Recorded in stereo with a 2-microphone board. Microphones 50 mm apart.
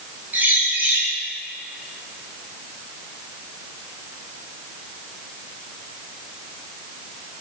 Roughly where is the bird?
Right.